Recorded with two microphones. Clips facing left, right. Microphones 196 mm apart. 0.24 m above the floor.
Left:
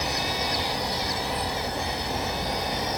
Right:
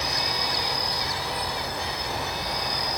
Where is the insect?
25° left (ahead or behind), 0.9 m.